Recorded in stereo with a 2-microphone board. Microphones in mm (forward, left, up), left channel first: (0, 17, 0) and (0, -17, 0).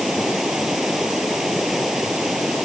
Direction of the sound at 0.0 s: 10° right (ahead or behind).